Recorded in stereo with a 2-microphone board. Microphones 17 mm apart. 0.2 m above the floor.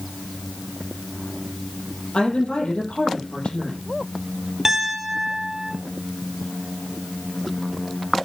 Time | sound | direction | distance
2.1 | a woman speaking | 75° left (ahead or behind) | 5.5 m
4.7 | a piano | 20° right (ahead or behind) | 1.9 m